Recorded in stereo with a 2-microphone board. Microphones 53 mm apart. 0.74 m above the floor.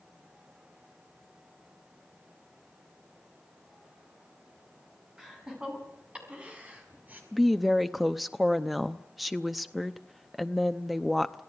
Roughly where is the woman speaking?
Centre.